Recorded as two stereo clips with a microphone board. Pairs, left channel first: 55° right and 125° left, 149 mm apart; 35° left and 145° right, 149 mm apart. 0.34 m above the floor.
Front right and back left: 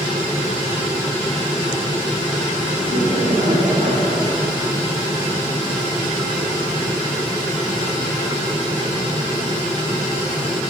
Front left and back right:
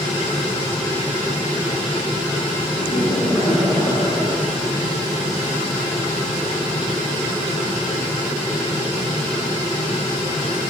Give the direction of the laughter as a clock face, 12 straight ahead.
8 o'clock.